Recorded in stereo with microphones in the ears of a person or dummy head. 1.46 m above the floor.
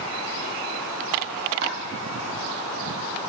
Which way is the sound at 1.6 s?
60° right (ahead or behind).